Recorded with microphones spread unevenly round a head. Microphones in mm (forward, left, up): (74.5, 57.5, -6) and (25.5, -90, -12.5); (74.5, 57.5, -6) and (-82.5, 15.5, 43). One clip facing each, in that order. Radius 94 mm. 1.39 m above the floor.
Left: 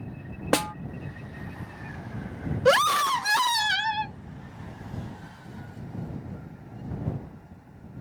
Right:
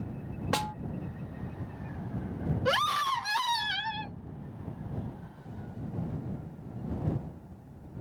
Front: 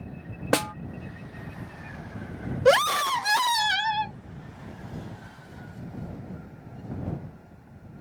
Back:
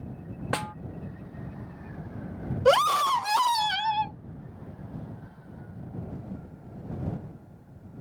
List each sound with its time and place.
0.5 s a snare drum: 55° left
2.6 s a scream: 75° left